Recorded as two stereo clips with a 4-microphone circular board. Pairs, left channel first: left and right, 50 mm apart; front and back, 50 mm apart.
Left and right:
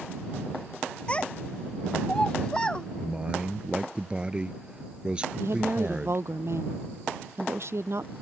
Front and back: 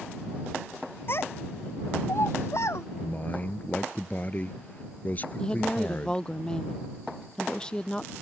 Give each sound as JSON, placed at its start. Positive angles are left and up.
{"t": 1.1, "sound": "a child speaking", "azimuth_deg": 25}
{"t": 3.0, "sound": "a man speaking", "azimuth_deg": -35}
{"t": 5.4, "sound": "a woman speaking", "azimuth_deg": -75}